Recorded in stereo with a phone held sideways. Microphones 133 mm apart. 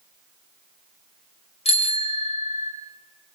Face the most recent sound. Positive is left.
turn(degrees=50)  # may be behind; listen again after turning